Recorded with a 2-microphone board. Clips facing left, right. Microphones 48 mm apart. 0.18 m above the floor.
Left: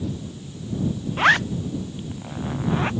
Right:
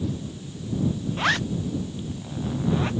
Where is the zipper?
30° left (ahead or behind).